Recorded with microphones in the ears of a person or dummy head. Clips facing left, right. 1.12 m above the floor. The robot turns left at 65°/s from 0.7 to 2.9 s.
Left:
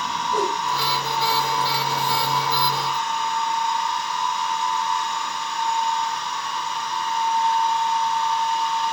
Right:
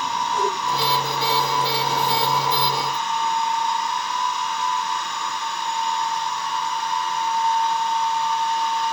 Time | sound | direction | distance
0.3 | a whoosh | 65° left (ahead or behind) | 5 m